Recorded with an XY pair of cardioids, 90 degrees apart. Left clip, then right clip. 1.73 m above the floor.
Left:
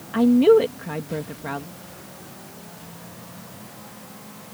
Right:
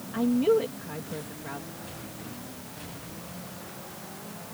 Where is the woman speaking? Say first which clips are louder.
Left 9 dB; 70° left.